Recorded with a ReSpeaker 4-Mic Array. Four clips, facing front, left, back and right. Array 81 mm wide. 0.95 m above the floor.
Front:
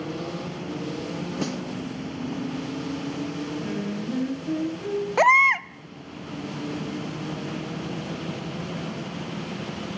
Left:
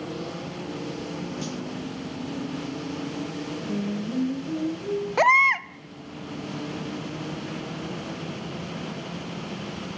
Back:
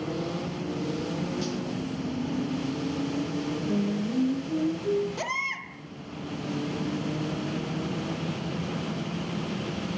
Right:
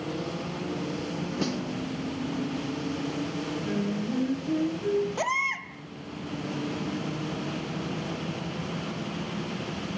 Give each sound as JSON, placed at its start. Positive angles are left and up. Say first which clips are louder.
{"t": 1.4, "sound": "a snare drum", "louder": "right 3 dB, front 2 dB", "azimuth_deg": -30, "distance_m": 0.8}
{"t": 3.6, "sound": "singing", "louder": "left 1 dB, back 2 dB", "azimuth_deg": -10, "distance_m": 5.0}
{"t": 5.2, "sound": "a baby crying", "louder": "left 10 dB, front 14 dB", "azimuth_deg": 35, "distance_m": 0.5}